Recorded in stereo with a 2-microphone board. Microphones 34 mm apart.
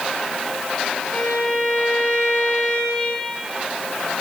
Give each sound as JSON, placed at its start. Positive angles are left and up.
{"t": 1.1, "sound": "a violin", "side_deg": 80, "distance_m": 5.5}